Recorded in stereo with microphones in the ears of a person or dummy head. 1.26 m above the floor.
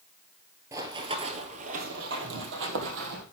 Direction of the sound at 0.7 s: 15° right (ahead or behind).